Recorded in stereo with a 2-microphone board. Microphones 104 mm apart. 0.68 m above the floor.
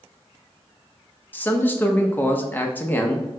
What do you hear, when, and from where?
1.3 s a man speaking: 15° left (ahead or behind), 0.6 m